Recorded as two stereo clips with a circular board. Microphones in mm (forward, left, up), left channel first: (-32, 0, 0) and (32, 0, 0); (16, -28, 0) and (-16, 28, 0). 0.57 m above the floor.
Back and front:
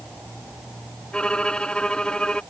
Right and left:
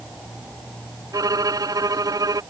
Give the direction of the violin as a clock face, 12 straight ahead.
9 o'clock.